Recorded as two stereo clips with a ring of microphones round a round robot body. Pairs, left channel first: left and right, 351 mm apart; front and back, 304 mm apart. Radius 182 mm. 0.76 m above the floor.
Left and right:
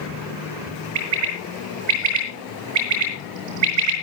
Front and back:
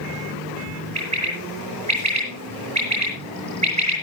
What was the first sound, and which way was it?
A bird, 105° right.